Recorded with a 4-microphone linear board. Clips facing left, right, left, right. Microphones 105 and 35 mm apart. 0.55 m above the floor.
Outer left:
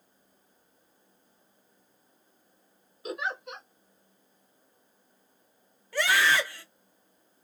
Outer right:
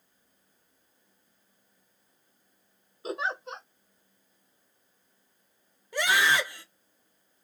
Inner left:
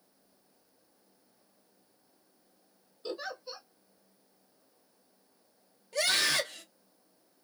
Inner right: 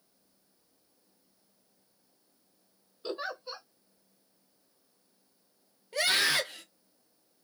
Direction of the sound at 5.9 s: 20° right (ahead or behind).